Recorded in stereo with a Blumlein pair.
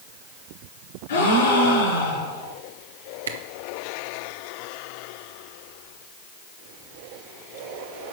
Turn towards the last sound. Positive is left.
turn(degrees=-65)